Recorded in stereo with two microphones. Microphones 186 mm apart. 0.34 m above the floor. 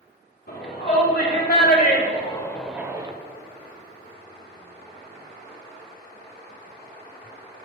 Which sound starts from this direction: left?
A shout, at 0.5 s.